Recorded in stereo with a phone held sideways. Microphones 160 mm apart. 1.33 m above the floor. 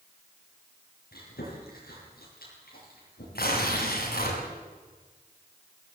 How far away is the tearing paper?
About 6 m.